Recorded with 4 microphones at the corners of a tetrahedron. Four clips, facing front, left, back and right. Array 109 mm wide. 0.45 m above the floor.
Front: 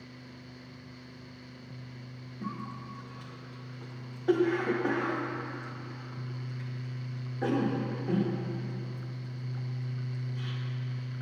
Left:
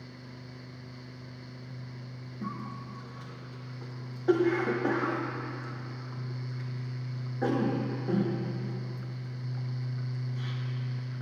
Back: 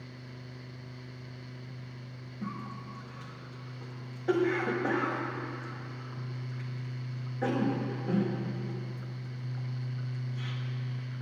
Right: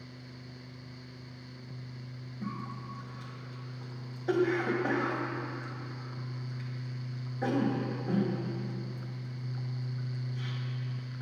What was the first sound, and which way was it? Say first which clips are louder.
A cough: left 1 dB, front 1 dB; 65° left.